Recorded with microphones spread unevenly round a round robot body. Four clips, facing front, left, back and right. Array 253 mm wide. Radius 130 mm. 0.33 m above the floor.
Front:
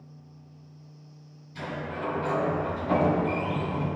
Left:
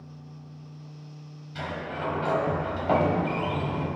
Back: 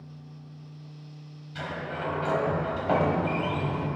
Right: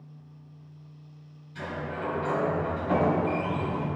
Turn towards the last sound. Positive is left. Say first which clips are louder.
# left 1 dB, even
turn(degrees=120)